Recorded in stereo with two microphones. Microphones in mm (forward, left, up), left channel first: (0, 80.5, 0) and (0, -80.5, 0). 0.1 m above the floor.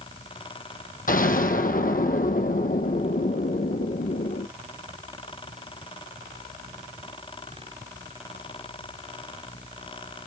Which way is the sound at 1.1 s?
60° left (ahead or behind).